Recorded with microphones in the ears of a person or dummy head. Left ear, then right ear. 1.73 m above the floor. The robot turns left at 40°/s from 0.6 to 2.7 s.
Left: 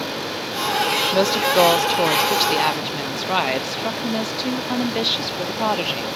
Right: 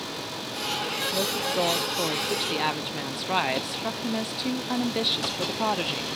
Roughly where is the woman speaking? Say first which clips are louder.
Left 10 dB; left.